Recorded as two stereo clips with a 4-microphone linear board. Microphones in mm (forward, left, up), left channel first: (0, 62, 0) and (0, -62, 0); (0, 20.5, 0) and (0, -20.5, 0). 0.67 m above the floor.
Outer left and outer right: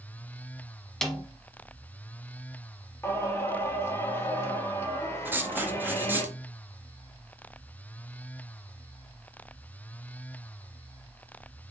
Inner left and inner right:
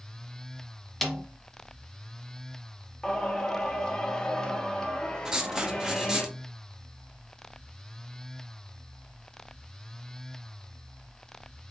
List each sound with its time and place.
1.0 s a snare drum: 5° left (ahead or behind), 0.8 m
3.0 s singing: 20° left (ahead or behind), 1.0 m
5.2 s writing: 15° right (ahead or behind), 0.7 m